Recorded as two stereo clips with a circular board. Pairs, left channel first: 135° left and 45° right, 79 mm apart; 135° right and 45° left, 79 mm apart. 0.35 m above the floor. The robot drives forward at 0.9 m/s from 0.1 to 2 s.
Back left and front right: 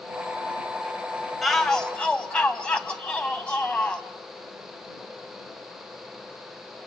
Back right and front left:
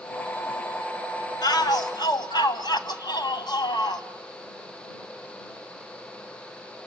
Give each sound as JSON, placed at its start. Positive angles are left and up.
{"t": 1.4, "sound": "a shout", "azimuth_deg": -135, "distance_m": 1.4}